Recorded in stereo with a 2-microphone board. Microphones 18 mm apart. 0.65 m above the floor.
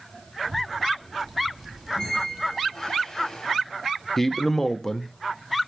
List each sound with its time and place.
0.4 s a child speaking: 15° left (ahead or behind), 1.2 m; by 2.8 s 50° right (ahead or behind), 0.7 m
1.9 s a squeak: 30° left (ahead or behind), 1.9 m
4.2 s a man speaking: 15° left (ahead or behind), 0.5 m